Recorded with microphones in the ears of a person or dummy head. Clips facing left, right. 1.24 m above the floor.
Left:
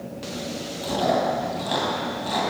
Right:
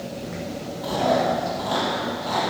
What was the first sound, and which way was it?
Chewing, 30° left (ahead or behind).